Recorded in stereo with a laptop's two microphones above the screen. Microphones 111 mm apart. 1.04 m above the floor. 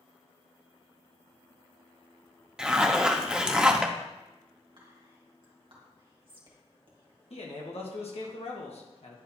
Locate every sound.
2.6 s a zipper: 5° right (ahead or behind), 0.7 m
4.8 s whispering: 50° right (ahead or behind), 1.6 m
7.3 s a man speaking: 65° left (ahead or behind), 1.2 m